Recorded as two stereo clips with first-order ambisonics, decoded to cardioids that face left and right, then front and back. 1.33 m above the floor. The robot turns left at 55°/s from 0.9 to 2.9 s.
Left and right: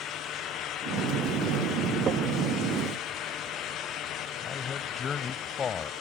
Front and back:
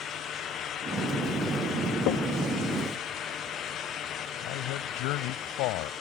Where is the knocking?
30° right; by 2.3 s 40° right.